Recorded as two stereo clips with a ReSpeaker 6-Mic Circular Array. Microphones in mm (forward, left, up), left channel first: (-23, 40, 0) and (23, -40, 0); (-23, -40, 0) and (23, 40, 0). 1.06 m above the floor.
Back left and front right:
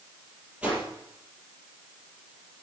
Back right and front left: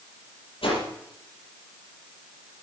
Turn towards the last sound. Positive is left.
turn(degrees=-140)